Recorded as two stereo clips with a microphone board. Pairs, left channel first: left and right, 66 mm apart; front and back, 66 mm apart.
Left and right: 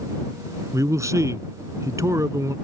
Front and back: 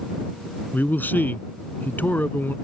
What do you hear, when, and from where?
0.7 s a man speaking: 60° right